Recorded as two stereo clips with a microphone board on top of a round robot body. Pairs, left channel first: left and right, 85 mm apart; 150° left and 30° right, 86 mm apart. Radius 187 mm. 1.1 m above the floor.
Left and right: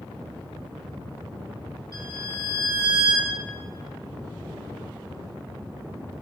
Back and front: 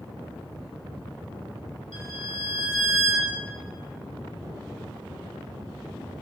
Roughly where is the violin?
Behind left.